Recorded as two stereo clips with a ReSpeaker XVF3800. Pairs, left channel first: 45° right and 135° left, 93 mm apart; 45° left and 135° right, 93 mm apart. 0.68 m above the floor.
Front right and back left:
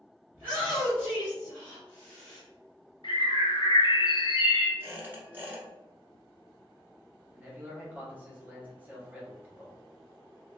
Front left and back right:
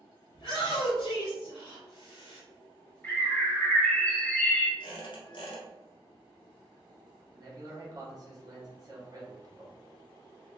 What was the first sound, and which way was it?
A shout, 65° left.